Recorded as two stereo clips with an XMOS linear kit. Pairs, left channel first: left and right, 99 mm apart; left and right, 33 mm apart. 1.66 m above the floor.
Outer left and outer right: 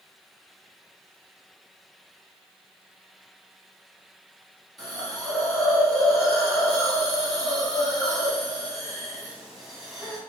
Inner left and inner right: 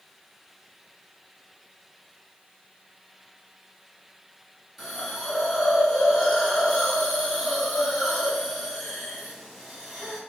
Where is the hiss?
Centre (ahead or behind), 1.5 m.